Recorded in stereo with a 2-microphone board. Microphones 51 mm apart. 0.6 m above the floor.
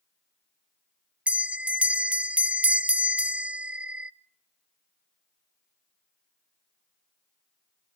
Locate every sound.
1.3 s a bell: 25° right (ahead or behind), 0.8 m